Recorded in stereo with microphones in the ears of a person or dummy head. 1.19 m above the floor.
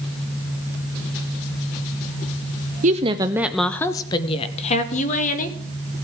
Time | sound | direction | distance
2.8 | a woman speaking | 40° right (ahead or behind) | 0.5 m